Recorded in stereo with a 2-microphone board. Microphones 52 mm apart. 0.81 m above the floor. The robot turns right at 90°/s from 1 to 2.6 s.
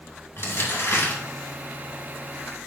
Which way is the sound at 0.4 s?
50° left (ahead or behind).